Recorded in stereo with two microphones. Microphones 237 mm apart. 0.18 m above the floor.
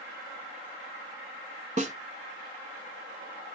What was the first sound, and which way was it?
A snare drum, 30° right (ahead or behind).